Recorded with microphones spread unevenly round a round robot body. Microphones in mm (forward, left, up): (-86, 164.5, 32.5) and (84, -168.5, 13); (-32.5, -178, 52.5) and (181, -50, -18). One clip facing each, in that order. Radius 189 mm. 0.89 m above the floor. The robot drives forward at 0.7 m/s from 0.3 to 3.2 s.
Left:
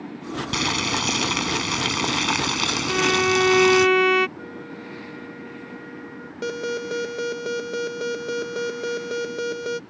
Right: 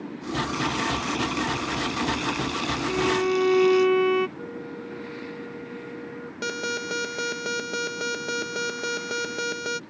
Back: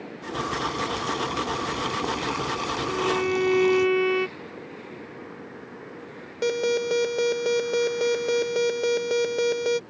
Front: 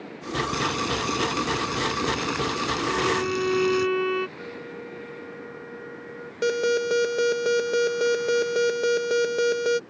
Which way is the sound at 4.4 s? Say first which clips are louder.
Right 1 dB, front 2 dB; 55° left.